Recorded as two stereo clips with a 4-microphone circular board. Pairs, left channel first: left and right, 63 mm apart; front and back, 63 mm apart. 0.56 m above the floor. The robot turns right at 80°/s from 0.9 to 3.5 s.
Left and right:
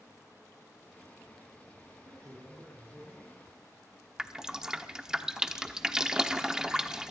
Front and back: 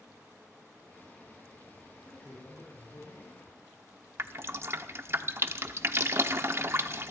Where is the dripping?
165° right, 0.9 m.